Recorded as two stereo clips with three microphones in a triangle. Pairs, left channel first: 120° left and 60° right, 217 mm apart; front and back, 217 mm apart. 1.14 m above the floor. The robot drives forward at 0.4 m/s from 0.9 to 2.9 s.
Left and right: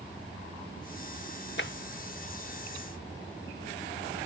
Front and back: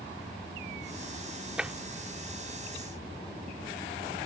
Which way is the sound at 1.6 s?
95° left.